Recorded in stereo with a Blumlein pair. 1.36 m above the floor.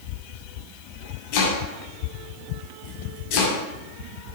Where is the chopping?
45° left, 6 m.